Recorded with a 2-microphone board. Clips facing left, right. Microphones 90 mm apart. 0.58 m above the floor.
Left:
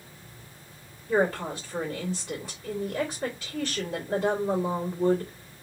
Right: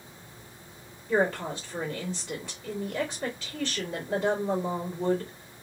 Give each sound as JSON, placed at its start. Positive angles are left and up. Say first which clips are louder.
{"t": 1.1, "sound": "a woman speaking", "louder": "left 1 dB", "side_deg": 0, "distance_m": 1.6}